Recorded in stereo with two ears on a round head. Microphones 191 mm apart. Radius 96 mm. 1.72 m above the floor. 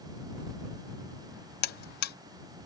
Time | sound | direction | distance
1.6 | a buzzer | 45° left (ahead or behind) | ?